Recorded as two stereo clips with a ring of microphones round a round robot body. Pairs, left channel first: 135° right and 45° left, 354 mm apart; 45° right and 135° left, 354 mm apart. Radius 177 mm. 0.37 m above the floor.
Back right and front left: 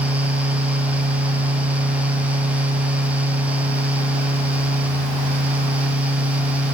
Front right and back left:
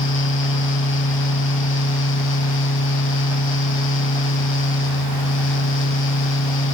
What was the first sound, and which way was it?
Only background noise.